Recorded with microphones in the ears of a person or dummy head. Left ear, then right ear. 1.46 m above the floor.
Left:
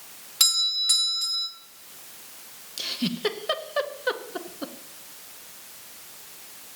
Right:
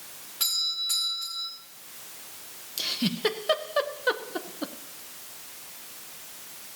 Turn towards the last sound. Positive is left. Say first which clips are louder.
# right 1 dB
turn(degrees=0)  # may be behind; listen again after turning